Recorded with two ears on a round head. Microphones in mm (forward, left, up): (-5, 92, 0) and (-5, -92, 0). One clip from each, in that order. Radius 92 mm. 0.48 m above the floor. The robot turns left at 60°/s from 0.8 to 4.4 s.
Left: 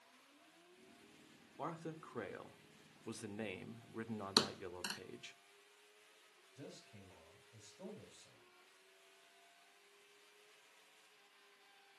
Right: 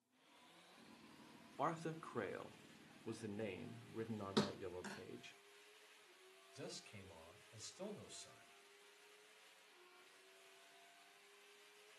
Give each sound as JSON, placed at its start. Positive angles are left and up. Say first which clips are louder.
{"t": 1.6, "sound": "a man speaking", "louder": "right 3 dB", "azimuth_deg": -135, "distance_m": 0.8}
{"t": 4.4, "sound": "a thud", "louder": "left 7 dB", "side_deg": 75, "distance_m": 1.3}
{"t": 6.5, "sound": "a man speaking", "louder": "right 3 dB", "side_deg": -55, "distance_m": 3.0}